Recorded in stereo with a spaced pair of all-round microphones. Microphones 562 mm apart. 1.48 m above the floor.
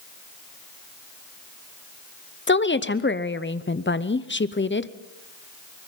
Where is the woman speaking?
20° left (ahead or behind), 0.7 m.